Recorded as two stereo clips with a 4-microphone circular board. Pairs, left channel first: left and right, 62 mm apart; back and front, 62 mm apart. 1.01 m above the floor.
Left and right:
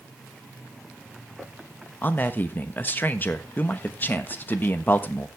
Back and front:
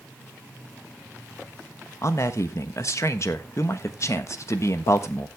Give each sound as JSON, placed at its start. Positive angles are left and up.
{"t": 2.0, "sound": "a man speaking", "azimuth_deg": 145, "distance_m": 1.2}